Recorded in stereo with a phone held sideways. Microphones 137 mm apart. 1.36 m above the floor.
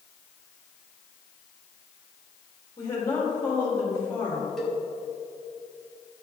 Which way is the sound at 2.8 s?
25° left (ahead or behind).